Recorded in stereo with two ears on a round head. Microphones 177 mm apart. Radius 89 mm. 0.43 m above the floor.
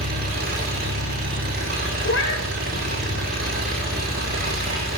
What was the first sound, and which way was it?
An engine running, 50° right (ahead or behind).